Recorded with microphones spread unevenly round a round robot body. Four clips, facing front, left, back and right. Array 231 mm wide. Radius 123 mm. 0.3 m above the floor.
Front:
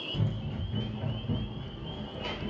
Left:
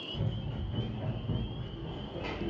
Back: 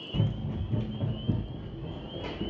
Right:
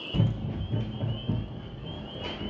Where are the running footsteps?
95° right, 0.6 m; by 2.5 s straight behind, 1.3 m.